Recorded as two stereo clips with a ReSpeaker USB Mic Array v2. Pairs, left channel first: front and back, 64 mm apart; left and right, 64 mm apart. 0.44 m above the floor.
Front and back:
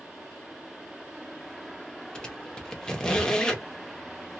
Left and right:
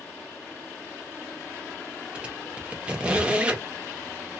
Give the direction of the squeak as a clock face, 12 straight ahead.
2 o'clock.